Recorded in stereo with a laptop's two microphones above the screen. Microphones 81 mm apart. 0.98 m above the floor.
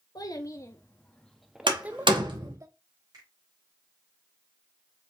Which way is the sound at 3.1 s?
50° right (ahead or behind).